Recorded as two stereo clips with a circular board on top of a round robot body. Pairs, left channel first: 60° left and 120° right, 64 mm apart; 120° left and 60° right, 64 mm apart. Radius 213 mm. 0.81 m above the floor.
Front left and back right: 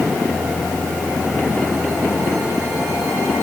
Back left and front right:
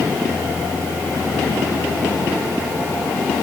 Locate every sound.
Only background noise.